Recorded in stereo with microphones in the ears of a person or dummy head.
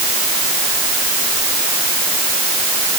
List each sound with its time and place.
Only background noise.